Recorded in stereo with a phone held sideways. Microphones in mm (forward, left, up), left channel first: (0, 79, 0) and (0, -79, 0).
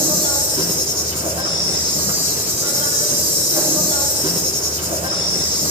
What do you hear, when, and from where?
0.0 s an insect: 40° right (ahead or behind), 4 m